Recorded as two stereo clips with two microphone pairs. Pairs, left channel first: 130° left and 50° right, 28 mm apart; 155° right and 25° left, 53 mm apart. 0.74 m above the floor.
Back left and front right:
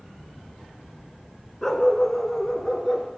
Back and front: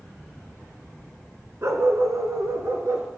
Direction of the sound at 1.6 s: 55° left.